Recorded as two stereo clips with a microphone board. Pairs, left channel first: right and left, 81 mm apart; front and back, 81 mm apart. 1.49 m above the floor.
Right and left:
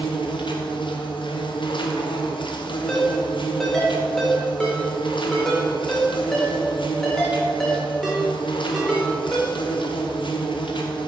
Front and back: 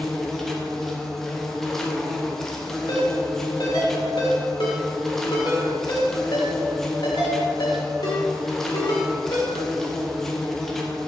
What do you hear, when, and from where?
0.0 s an insect: 85° right, 0.7 m
2.9 s a ringtone: 5° right, 1.9 m